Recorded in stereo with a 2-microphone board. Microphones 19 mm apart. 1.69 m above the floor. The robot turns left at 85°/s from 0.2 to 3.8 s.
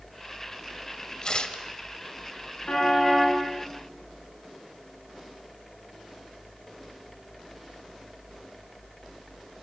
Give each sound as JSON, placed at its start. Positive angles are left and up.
{"t": 1.2, "sound": "tearing paper", "azimuth_deg": 130, "distance_m": 2.0}
{"t": 2.7, "sound": "a car horn", "azimuth_deg": 60, "distance_m": 9.5}